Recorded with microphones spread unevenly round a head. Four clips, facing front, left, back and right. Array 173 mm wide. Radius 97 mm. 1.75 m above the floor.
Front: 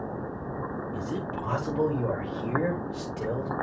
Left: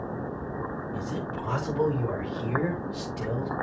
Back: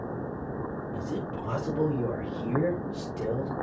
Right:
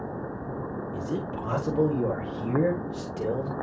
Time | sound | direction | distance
0.9 | a man speaking | 105° right | 6.5 m